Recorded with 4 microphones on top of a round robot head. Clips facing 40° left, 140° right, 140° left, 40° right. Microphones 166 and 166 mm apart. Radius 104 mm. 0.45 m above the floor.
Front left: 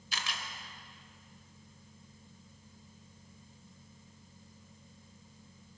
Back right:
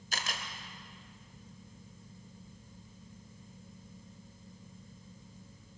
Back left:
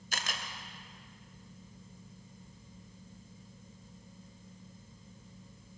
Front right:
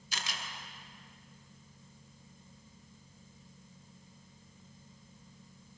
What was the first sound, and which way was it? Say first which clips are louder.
A camera shutter: back right 2 dB, back left 2 dB; 175° left.